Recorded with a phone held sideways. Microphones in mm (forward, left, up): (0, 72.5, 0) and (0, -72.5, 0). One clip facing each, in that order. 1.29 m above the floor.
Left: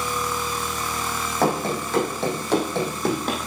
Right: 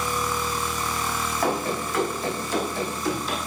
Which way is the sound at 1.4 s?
65° left (ahead or behind).